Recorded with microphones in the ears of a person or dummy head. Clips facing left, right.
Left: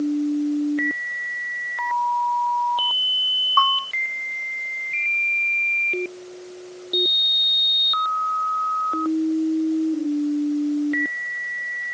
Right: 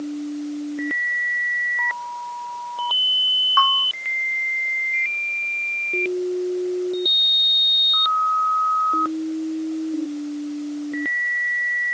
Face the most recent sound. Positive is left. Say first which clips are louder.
# even
turn(degrees=-10)  # may be behind; listen again after turning